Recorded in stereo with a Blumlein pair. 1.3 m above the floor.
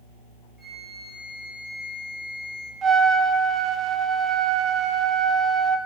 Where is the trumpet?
15° right, 0.6 m.